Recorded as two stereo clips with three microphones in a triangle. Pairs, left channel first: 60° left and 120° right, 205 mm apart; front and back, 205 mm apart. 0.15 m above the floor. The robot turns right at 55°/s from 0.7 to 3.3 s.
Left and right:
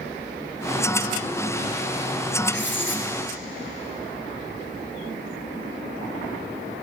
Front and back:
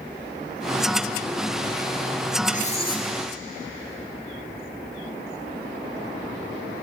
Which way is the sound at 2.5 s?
45° left.